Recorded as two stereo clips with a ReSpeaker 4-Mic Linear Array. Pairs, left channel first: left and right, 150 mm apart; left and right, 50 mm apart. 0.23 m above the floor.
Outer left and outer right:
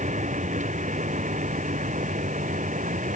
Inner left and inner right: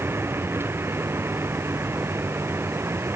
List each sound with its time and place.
0.0 s a vehicle: 60° right (ahead or behind)